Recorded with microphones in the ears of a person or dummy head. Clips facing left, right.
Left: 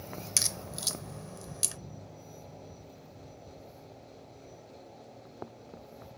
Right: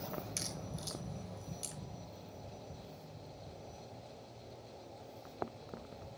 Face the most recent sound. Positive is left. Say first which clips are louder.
# left 2 dB
turn(degrees=80)